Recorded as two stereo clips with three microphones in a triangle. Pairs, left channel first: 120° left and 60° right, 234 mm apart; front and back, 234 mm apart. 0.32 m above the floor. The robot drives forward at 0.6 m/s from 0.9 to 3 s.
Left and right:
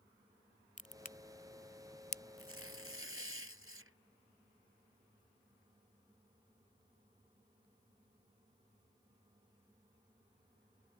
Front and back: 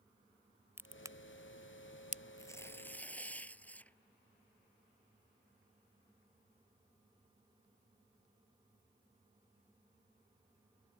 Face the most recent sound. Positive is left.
turn(degrees=-85)